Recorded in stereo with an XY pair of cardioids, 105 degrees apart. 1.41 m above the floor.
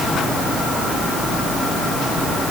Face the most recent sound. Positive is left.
No sound to turn to.